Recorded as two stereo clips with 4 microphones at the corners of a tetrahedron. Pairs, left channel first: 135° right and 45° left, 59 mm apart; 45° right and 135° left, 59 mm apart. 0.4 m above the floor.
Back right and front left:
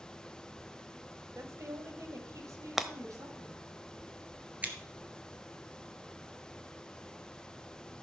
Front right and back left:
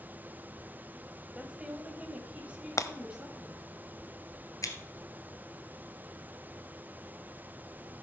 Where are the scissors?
20° right, 1.6 m.